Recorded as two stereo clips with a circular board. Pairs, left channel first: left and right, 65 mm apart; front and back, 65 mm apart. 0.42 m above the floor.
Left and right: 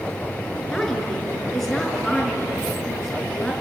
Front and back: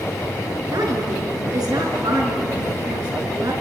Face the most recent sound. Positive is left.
turn(degrees=175)